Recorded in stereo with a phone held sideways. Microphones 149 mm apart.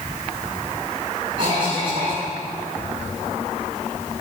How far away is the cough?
About 2 m.